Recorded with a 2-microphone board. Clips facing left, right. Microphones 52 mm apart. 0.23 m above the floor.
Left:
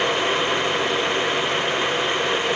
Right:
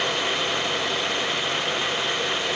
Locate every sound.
Only background noise.